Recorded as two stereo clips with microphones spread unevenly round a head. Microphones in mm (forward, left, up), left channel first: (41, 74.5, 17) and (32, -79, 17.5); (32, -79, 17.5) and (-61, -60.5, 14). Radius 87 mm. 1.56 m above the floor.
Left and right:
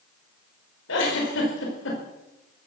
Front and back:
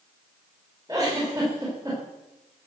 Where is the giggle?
95° left, 4.5 m.